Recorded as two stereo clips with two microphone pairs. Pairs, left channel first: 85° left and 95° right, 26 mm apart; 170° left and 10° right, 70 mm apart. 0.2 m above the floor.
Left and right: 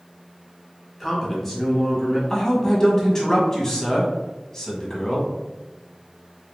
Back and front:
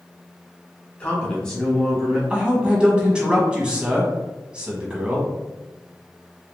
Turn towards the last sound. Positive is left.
turn(degrees=45)